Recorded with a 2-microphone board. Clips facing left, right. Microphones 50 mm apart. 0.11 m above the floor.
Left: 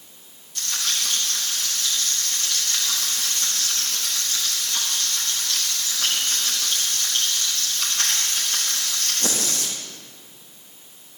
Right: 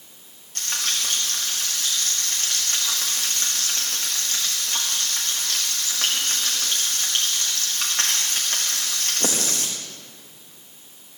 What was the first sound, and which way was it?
Frying, 55° right (ahead or behind).